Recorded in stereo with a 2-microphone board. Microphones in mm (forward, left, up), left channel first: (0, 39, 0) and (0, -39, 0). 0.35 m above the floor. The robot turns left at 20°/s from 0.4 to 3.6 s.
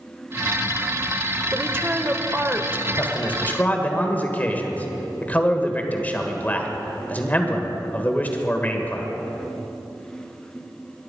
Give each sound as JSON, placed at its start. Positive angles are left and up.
{"t": 1.5, "sound": "a woman speaking", "side_deg": -30, "distance_m": 1.0}
{"t": 3.0, "sound": "a man speaking", "side_deg": 25, "distance_m": 1.5}